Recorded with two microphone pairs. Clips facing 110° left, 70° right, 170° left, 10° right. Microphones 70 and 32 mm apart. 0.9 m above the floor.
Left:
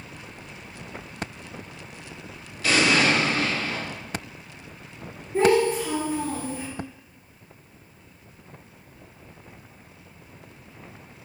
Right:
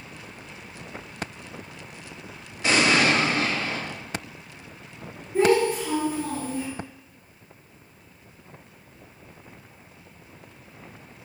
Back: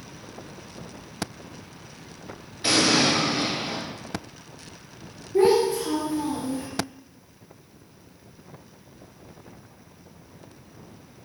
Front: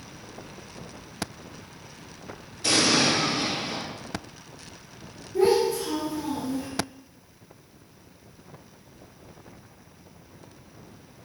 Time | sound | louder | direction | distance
2.6 | an explosion | even, back 1 dB | 130° right | 0.9 m
5.3 | a child speaking | even, back 2 dB | 165° left | 1.5 m